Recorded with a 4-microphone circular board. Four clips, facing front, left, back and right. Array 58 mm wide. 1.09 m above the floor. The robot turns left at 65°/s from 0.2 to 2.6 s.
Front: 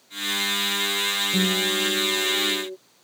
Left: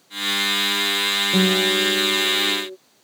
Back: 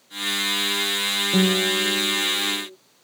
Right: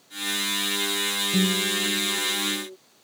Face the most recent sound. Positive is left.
turn(degrees=40)